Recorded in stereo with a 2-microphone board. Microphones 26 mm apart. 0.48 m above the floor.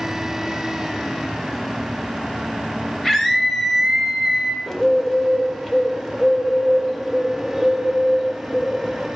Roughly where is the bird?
Centre.